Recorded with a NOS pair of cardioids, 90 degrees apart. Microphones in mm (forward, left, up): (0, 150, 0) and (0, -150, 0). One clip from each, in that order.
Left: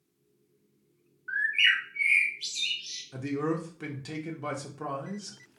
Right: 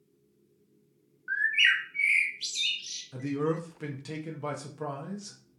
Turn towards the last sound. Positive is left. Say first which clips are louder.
# right 1 dB
turn(degrees=0)